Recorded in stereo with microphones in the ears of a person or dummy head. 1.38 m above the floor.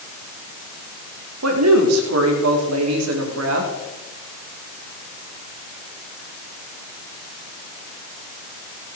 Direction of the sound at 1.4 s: 85° right.